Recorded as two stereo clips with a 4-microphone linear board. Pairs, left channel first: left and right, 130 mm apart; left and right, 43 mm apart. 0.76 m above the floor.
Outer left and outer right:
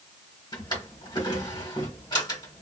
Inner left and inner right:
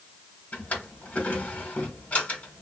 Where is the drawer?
35° left (ahead or behind), 1.3 m.